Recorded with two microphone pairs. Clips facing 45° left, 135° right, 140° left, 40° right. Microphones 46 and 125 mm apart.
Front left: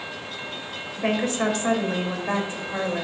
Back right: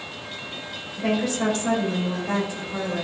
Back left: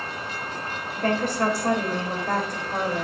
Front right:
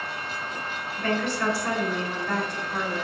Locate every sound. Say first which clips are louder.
1.0 s a woman speaking: even, back left 3 dB; 95° left, 3 m